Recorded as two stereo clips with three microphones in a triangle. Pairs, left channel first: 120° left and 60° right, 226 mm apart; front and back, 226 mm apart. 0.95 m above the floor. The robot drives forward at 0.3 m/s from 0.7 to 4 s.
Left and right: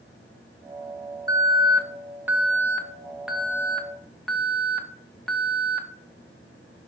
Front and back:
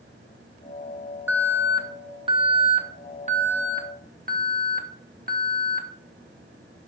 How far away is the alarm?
About 1.3 m.